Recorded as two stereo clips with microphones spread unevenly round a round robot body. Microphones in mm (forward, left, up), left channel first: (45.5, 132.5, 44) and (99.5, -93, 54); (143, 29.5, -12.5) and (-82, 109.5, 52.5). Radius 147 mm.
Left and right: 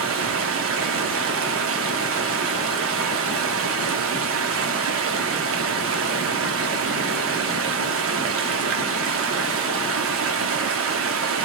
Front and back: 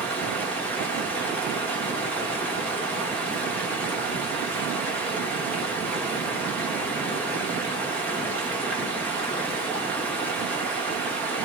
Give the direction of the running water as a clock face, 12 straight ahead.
3 o'clock.